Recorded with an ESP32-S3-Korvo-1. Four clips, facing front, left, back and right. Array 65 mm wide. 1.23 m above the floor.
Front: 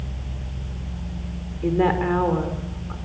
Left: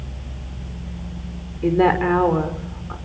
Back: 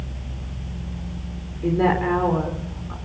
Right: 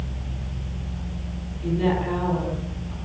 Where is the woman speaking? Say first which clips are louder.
Left 7 dB, even; 80° left, 4.5 m.